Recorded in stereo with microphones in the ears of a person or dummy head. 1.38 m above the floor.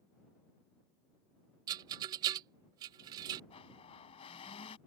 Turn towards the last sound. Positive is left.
turn(degrees=30)  # may be behind; listen again after turning